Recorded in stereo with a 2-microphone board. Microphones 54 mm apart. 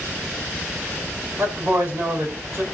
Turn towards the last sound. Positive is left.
turn(degrees=-45)  # may be behind; listen again after turning